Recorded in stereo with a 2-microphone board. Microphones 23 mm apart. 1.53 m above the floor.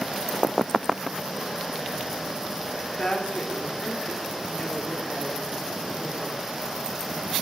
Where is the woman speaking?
55° left (ahead or behind), 4.5 m.